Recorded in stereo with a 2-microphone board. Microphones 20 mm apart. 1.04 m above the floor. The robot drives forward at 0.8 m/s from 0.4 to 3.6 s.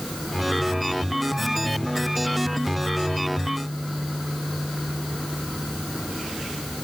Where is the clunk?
No clunk in this recording.